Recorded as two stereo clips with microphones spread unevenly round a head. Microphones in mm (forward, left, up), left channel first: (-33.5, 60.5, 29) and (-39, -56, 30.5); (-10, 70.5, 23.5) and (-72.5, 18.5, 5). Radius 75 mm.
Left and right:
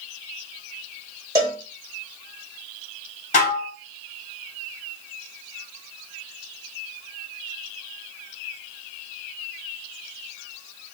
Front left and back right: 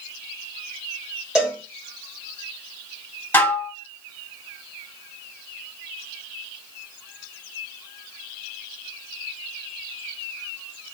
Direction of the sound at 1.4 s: 45° right.